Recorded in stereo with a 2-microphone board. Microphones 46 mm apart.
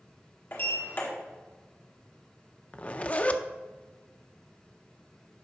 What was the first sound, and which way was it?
A sliding door, 45° left (ahead or behind).